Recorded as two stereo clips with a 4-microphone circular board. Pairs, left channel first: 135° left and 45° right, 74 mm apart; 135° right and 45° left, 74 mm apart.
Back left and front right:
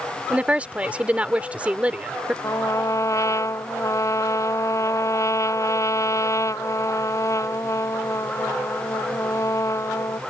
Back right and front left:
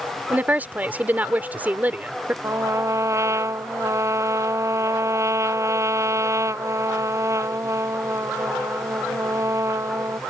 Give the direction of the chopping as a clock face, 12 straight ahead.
I don't hear chopping.